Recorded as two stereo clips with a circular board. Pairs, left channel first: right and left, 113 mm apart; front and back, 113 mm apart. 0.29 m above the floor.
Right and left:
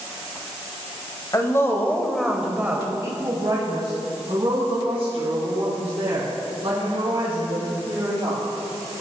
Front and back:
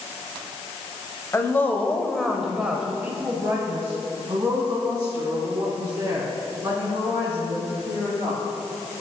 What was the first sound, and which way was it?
A woman speaking, 50° right.